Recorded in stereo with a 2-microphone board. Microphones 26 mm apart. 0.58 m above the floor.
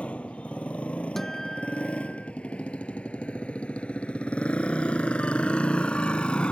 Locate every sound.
0.0 s a motorcycle: 50° left (ahead or behind); by 6.5 s 35° left (ahead or behind)
1.2 s a guitar: 15° left (ahead or behind)